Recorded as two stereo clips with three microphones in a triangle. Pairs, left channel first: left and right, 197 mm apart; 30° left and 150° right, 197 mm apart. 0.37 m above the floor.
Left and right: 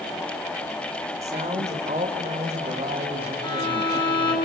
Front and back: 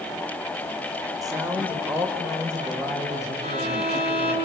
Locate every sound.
1.2 s a woman speaking: 95° right, 1.5 m; by 4.4 s 30° right, 2.5 m
3.4 s a violin: 155° left, 3.5 m